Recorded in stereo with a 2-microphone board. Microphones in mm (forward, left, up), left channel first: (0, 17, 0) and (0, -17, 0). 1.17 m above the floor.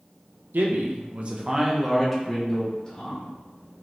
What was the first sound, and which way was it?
A man speaking, 80° right.